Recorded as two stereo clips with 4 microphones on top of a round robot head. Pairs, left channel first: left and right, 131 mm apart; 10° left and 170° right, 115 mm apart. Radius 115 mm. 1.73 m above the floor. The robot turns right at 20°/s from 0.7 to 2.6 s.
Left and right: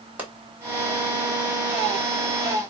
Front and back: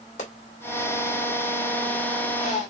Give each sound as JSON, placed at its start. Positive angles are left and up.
{"t": 0.2, "sound": "a pop", "azimuth_deg": -15, "distance_m": 2.0}